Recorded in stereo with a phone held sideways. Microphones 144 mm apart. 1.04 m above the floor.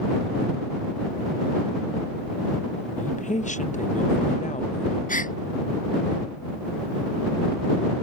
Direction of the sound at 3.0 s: 60° left (ahead or behind).